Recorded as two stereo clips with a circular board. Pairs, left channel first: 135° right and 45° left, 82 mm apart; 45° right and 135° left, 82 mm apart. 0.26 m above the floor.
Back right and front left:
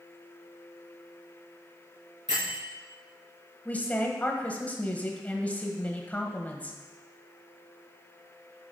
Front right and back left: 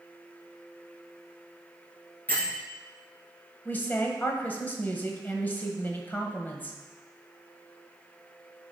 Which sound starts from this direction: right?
A woman speaking, at 3.6 s.